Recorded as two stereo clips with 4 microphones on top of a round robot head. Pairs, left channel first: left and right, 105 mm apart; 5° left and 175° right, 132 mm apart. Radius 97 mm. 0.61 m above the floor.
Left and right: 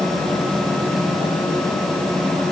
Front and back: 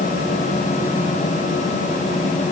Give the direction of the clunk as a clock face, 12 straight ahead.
I don't hear a clunk.